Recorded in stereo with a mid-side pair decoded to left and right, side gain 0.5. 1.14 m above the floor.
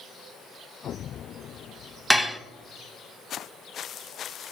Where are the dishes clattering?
5° right, 0.6 m.